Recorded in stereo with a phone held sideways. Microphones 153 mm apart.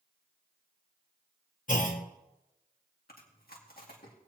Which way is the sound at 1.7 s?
60° left (ahead or behind).